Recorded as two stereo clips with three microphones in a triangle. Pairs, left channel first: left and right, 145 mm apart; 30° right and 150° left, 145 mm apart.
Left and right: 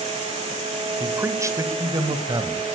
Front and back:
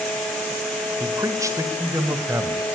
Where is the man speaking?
155° right, 1.7 m; by 2.7 s 140° right, 3 m.